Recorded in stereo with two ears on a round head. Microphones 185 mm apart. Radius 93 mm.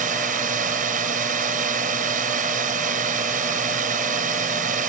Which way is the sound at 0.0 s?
40° right (ahead or behind).